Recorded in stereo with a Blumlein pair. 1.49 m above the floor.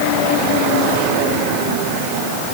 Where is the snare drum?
I don't hear a snare drum.